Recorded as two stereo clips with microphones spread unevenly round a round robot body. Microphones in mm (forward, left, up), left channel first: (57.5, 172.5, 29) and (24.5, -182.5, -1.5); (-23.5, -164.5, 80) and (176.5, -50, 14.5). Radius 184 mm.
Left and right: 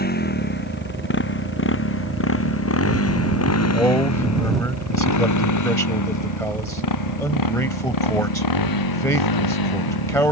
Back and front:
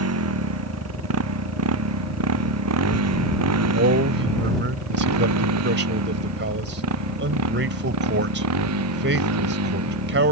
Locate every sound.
0.0 s a motorcycle: 20° left; by 10.3 s 55° left
3.7 s a man speaking: straight ahead